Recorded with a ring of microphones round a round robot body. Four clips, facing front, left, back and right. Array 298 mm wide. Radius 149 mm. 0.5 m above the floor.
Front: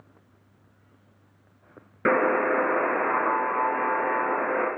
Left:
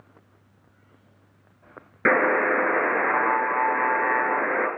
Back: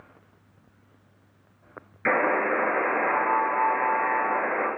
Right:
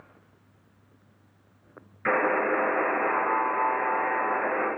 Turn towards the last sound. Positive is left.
turn(degrees=45)